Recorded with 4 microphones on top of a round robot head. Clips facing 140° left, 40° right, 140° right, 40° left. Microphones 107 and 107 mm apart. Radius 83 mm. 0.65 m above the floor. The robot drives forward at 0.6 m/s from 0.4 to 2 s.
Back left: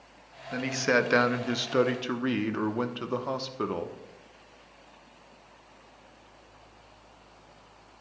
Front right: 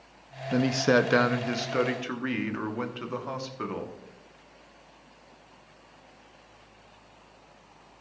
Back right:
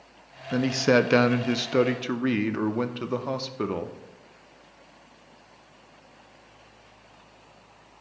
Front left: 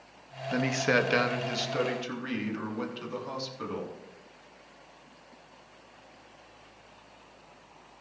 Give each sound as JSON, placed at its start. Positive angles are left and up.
{"t": 0.5, "sound": "a man speaking", "azimuth_deg": -70, "distance_m": 0.6}